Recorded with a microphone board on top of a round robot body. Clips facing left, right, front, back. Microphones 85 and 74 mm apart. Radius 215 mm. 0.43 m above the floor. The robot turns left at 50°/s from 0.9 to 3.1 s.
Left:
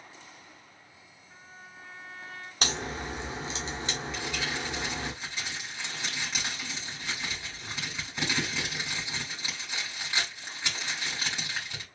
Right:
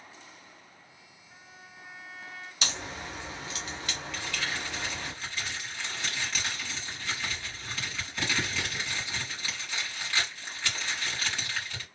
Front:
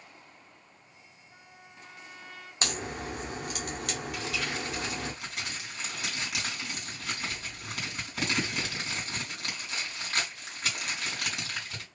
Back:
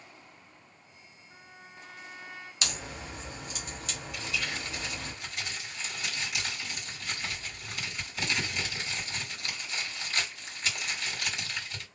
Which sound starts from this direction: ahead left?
A crack, at 2.6 s.